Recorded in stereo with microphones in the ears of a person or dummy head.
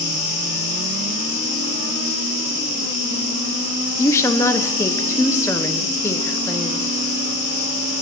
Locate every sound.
0.0 s an insect: 35° left (ahead or behind), 5.5 m
4.0 s a woman speaking: 20° left (ahead or behind), 0.9 m